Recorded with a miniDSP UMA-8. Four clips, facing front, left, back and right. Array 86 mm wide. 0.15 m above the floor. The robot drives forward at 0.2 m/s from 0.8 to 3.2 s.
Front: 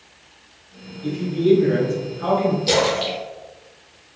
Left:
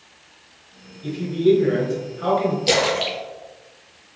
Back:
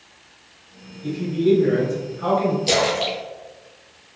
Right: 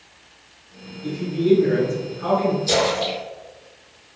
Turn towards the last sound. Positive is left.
turn(degrees=105)